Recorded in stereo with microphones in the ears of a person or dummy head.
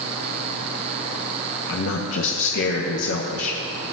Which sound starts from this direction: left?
A man speaking, at 1.7 s.